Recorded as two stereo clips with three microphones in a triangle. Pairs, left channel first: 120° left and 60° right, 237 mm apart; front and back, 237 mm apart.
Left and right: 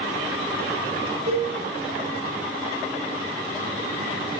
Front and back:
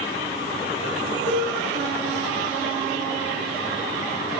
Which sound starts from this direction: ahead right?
A cowbell, at 1.3 s.